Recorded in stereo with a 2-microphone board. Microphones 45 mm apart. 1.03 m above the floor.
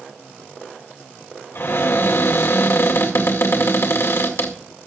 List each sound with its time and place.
1.6 s a cupboard door: 65° left (ahead or behind), 2 m